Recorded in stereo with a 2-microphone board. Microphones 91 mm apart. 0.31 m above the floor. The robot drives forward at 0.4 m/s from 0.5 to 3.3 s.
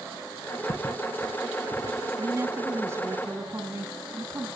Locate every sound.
0.7 s footsteps: 50° left (ahead or behind), 2.5 m; by 2.1 s 40° left (ahead or behind), 1.6 m
2.2 s a woman speaking: 30° right (ahead or behind), 2.5 m; by 4.5 s 25° right (ahead or behind), 3 m